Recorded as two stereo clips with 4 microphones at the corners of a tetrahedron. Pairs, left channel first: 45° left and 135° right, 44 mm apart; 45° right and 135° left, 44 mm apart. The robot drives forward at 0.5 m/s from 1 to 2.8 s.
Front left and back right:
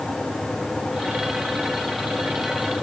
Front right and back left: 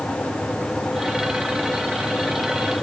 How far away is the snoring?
I don't hear snoring.